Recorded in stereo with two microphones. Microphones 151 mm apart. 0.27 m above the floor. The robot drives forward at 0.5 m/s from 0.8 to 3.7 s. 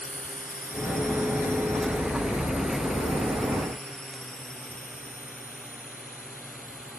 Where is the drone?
65° left (ahead or behind).